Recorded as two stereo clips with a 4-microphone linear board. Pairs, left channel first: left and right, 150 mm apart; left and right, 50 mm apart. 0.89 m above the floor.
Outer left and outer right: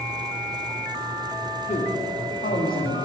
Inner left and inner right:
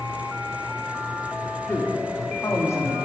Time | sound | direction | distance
1.7 | a man speaking | 45° left (ahead or behind) | 1.3 m